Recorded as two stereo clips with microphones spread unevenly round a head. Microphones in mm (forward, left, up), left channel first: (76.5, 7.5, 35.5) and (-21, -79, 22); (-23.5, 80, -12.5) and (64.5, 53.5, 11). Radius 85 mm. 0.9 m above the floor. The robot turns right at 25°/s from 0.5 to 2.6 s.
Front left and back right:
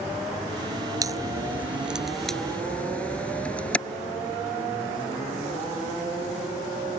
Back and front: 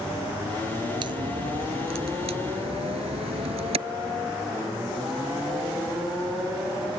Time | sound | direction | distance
1.0 | a crack | 75° right | ?